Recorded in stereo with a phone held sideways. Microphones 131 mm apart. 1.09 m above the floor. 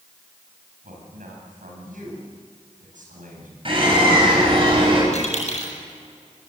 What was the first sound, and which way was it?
A man speaking, 85° right.